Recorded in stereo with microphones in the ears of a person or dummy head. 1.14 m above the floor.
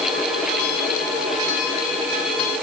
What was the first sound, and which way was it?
Only background noise.